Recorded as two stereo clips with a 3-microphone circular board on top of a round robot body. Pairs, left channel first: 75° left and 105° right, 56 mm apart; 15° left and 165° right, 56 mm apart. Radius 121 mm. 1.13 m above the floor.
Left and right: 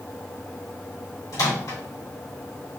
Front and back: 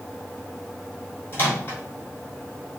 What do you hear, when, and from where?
1.3 s a microwave: 70° left, 2 m